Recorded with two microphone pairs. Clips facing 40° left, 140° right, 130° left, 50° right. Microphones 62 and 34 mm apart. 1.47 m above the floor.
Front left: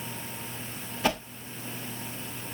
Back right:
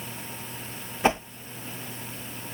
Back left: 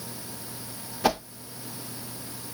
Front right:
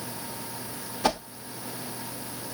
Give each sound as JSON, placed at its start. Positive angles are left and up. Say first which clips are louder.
{"t": 1.0, "sound": "a whoosh", "louder": "back right 5 dB, back left 1 dB", "azimuth_deg": -155, "distance_m": 0.7}